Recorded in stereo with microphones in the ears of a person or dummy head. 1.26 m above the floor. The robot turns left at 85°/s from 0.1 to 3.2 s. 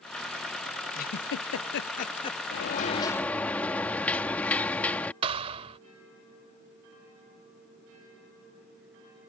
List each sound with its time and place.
0.9 s a giggle: 40° left (ahead or behind); by 2.4 s 15° left (ahead or behind)
2.5 s a sliding door: 65° left; by 5.1 s 5° left
5.2 s a thud: 30° right (ahead or behind)